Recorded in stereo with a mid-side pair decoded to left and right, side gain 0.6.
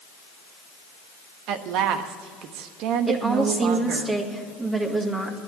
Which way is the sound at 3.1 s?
25° right.